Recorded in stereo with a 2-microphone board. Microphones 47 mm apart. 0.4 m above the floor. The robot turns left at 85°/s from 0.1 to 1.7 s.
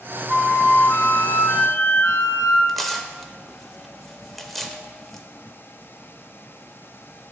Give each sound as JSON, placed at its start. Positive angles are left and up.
{"t": 0.3, "sound": "a flute", "azimuth_deg": -175, "distance_m": 0.7}
{"t": 2.7, "sound": "tearing paper", "side_deg": 5, "distance_m": 0.5}